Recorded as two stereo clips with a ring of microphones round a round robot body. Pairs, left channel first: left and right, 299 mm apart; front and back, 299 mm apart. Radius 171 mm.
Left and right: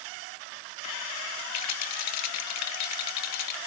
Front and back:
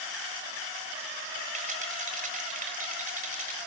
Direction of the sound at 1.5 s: 115° left.